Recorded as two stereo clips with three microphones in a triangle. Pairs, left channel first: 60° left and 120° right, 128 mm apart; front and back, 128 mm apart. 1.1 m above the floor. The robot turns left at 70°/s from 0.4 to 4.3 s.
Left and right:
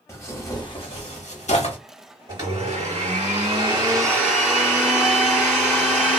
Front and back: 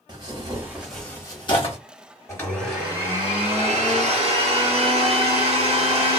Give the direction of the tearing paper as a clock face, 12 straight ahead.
8 o'clock.